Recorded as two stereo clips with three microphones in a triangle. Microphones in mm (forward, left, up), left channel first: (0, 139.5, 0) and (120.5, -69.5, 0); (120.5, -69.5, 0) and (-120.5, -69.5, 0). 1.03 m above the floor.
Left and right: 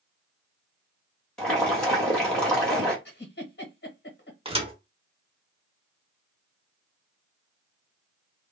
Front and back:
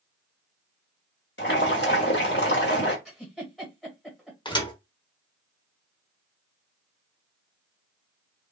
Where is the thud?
40° right, 0.7 m.